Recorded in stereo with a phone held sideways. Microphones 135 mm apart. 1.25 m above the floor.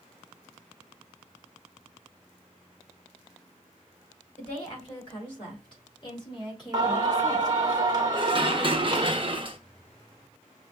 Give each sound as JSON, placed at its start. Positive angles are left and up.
{"t": 4.4, "sound": "a woman speaking", "side_deg": 45, "distance_m": 4.0}
{"t": 6.7, "sound": "singing", "side_deg": -30, "distance_m": 1.1}
{"t": 8.1, "sound": "dishes clattering", "side_deg": -40, "distance_m": 0.8}